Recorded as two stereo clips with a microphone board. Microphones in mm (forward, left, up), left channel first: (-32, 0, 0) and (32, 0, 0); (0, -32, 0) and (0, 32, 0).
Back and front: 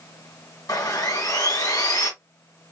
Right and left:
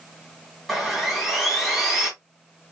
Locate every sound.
0.7 s sawing: straight behind, 2.5 m